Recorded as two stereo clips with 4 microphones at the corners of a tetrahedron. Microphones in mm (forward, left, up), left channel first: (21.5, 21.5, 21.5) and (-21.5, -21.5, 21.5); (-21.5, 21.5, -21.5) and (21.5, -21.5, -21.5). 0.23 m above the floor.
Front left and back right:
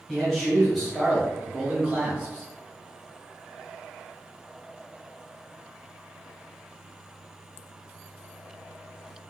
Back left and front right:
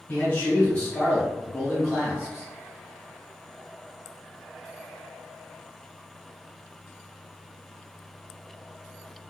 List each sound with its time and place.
0.1 s a man speaking: 130° left, 1.3 m; by 2.5 s 90° right, 1.2 m